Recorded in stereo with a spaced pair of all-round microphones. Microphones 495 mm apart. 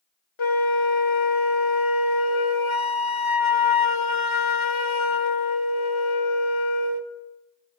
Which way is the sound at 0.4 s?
70° left (ahead or behind).